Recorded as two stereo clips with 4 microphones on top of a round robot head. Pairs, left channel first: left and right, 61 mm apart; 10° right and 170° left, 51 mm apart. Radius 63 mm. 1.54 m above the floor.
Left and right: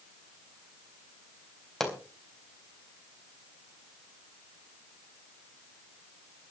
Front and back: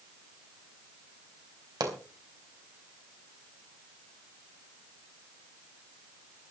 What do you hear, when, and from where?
1.8 s a pop: 175° left, 3.5 m